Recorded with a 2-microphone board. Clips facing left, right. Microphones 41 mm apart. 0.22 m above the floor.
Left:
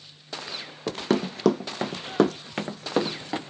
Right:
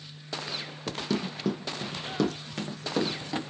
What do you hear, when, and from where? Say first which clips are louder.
0.9 s running footsteps: left 6 dB; 40° left (ahead or behind), 0.6 m; by 3.4 s 25° left (ahead or behind), 1.4 m